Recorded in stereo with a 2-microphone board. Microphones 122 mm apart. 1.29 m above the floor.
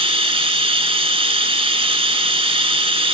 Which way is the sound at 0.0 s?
45° right (ahead or behind).